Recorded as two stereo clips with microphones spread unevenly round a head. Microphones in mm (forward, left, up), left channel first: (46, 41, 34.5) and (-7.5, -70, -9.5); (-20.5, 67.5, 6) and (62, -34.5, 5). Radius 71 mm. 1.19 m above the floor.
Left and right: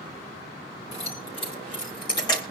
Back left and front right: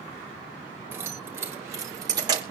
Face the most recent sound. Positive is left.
turn(degrees=5)